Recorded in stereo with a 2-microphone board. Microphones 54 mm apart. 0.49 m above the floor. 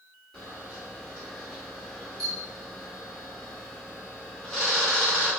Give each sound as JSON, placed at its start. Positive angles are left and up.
{"t": 0.3, "sound": "a camera shutter", "side_deg": 10, "distance_m": 1.6}